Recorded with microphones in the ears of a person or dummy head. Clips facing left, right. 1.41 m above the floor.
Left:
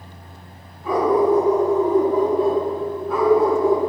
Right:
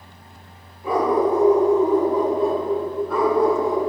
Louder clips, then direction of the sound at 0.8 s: Left 2 dB; 25° right (ahead or behind).